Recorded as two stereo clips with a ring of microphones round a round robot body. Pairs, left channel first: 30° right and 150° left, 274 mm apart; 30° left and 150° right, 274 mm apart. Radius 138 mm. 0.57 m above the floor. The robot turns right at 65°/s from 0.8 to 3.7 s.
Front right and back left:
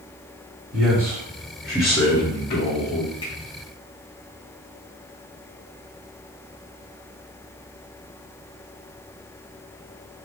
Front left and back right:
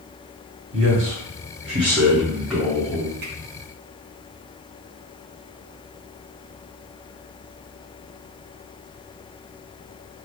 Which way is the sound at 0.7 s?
170° right.